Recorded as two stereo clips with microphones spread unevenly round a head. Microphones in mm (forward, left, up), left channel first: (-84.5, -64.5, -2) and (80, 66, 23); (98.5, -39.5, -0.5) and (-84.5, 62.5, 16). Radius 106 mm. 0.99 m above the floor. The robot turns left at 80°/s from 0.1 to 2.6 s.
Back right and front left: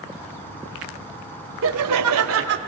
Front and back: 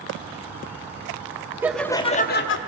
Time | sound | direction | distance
1.6 | laughter | 70° left | 0.7 m